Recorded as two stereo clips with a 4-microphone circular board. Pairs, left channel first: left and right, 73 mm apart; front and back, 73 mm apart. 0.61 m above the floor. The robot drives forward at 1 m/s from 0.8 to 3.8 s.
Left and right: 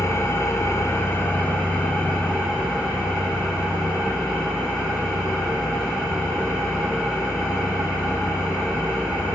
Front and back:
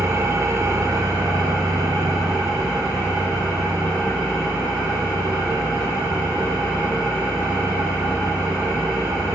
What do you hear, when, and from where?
0.0 s an engine running: 135° left, 0.9 m; by 9.3 s 170° left, 3.5 m